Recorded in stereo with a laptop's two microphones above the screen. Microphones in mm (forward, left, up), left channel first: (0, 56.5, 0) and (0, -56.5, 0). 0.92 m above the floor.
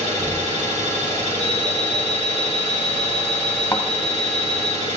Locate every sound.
0.0 s an engine running: 80° right, 1.8 m
1.4 s an alarm clock: 50° right (ahead or behind), 4.5 m
3.7 s a thud: 20° left (ahead or behind), 1.1 m